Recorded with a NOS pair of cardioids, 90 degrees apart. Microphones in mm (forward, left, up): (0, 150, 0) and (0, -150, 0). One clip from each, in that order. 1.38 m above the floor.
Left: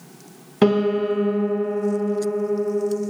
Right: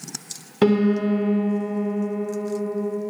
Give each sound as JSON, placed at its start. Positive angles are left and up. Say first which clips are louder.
{"t": 0.6, "sound": "a piano", "louder": "left 1 dB", "azimuth_deg": 10, "distance_m": 1.4}